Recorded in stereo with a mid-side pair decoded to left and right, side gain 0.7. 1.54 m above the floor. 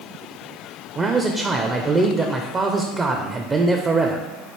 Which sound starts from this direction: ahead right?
A man speaking, at 0.9 s.